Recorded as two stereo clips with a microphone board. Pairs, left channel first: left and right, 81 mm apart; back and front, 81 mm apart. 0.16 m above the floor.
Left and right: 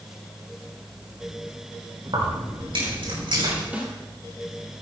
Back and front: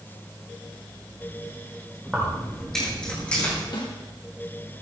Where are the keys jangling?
85° right, 5.5 m; by 3.6 s 110° right, 6.5 m.